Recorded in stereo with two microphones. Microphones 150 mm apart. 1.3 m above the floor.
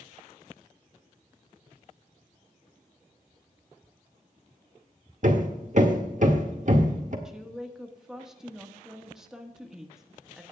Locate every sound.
5.2 s hammering: 60° right (ahead or behind), 1.6 m
7.2 s a woman speaking: 5° right (ahead or behind), 1.4 m